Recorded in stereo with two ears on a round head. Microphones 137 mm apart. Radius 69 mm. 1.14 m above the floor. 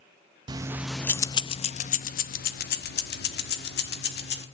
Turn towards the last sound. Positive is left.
turn(degrees=80)